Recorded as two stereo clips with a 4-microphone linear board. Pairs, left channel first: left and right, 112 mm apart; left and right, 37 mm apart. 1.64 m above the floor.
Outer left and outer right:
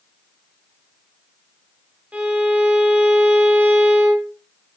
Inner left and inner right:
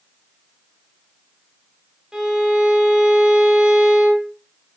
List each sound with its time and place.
2.1 s a violin: 15° right (ahead or behind), 3.5 m